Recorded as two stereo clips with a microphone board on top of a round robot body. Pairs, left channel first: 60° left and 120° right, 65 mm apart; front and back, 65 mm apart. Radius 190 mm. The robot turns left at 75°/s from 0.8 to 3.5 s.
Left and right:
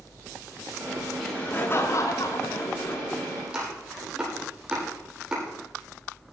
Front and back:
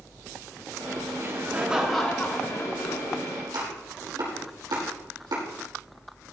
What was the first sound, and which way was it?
Laughter, 145° left.